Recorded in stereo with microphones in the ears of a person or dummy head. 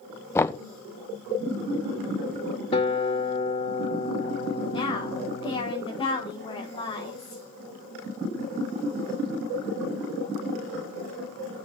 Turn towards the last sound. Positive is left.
turn(degrees=20)  # may be behind; listen again after turning